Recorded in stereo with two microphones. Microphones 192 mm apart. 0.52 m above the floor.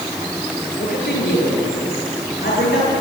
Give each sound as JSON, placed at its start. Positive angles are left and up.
{"t": 0.8, "sound": "a man speaking", "side_deg": 55, "distance_m": 9.5}